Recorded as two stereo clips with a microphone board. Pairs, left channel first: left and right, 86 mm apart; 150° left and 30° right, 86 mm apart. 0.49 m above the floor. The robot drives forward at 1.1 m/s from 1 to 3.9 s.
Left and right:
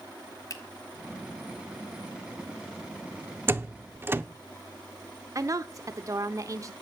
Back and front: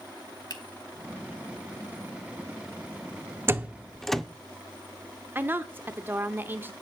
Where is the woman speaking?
85° right, 0.9 m.